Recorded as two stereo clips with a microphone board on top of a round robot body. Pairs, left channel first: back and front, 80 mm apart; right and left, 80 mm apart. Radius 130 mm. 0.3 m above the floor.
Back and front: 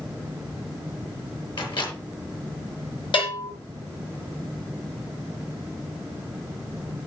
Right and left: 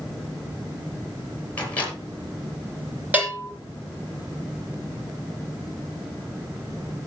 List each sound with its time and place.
1.6 s a microwave: 160° right, 7 m
3.1 s a bell: 160° left, 8 m